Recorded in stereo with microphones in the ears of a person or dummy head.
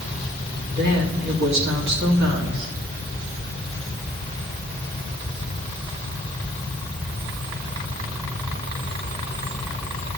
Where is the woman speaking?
75° right (ahead or behind), 3 m.